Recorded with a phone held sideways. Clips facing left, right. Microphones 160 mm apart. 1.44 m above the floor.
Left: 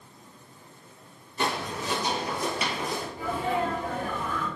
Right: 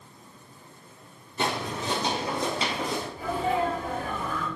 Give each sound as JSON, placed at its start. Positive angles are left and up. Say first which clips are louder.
{"t": 1.4, "sound": "footsteps", "louder": "right 1 dB", "side_deg": -25, "distance_m": 1.8}
{"t": 3.2, "sound": "a sneeze", "louder": "right 2 dB", "side_deg": 30, "distance_m": 1.8}